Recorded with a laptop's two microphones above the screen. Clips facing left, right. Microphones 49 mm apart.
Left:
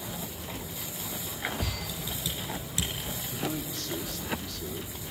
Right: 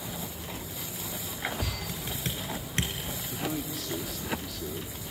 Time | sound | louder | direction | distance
1.9 | typing on a keyboard | right 1 dB | 45° right (ahead or behind) | 3.5 m
3.3 | a man speaking | right 1 dB | 5° right (ahead or behind) | 1.6 m